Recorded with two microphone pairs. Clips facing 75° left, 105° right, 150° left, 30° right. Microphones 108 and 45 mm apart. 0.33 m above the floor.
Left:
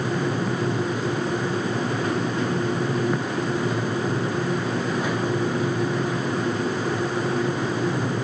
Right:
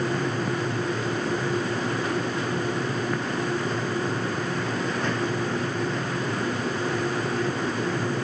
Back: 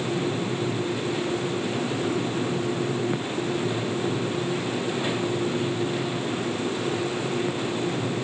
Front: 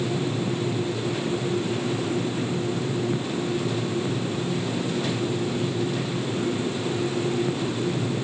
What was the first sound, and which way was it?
Only background noise.